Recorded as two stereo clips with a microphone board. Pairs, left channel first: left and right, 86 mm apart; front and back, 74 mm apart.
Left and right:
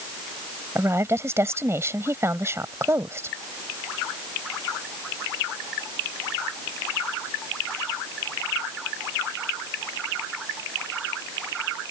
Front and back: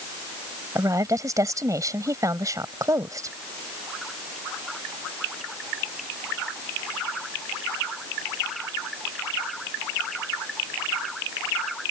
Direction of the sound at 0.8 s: 145° right.